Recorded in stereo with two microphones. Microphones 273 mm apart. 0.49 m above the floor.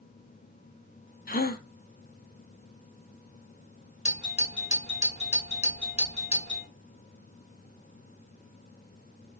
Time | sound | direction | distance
1.3 | a gasp | 35° left (ahead or behind) | 0.6 m
4.0 | a doorbell | 25° left (ahead or behind) | 1.4 m